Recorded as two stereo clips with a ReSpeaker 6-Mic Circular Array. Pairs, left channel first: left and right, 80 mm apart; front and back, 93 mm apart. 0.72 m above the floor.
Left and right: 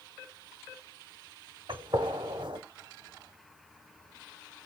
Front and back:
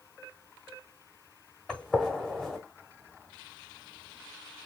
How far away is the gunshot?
About 1.0 m.